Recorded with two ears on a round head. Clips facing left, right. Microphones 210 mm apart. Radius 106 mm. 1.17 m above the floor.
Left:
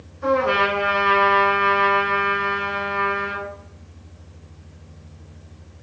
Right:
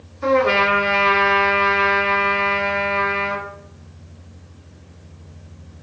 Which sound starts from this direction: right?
A trumpet, at 0.2 s.